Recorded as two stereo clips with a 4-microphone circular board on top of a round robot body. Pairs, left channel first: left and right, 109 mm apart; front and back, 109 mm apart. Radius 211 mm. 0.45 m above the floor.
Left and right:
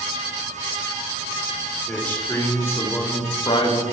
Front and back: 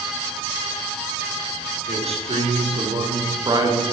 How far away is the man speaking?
About 2 m.